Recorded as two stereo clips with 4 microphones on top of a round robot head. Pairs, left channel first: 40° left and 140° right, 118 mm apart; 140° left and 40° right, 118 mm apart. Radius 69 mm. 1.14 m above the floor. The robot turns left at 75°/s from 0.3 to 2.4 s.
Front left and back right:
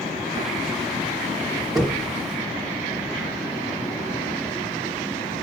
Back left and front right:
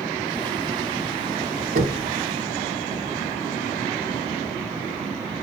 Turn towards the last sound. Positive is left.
turn(degrees=-100)